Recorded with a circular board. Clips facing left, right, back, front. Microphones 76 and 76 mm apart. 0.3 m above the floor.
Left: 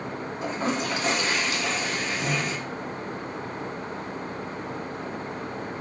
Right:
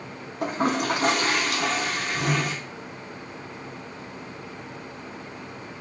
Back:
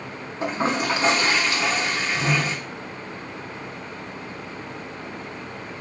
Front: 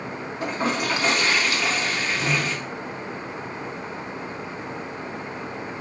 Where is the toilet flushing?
115° right, 0.7 m.